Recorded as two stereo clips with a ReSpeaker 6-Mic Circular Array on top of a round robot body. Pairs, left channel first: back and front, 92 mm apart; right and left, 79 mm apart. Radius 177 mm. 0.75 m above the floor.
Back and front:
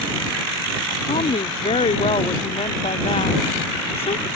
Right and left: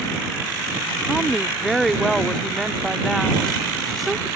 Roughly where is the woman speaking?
Behind.